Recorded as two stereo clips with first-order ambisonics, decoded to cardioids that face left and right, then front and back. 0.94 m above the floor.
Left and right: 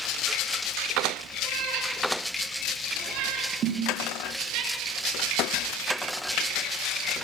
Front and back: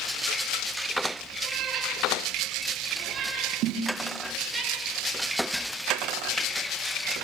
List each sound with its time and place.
1.4 s a cat meowing: 125° right, 5.5 m; by 4.6 s 105° right, 7 m
3.6 s a snare drum: 145° right, 3.5 m